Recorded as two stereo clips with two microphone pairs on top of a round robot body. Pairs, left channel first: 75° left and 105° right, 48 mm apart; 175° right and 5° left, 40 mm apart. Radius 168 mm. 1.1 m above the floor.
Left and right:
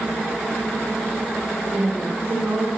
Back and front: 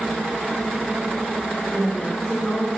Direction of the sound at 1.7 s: 105° right.